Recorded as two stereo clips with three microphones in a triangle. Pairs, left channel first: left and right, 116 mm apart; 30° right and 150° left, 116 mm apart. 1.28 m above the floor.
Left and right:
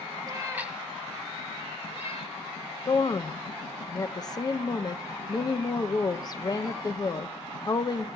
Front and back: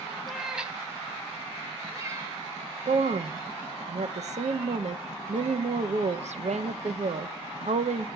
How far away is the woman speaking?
About 0.7 m.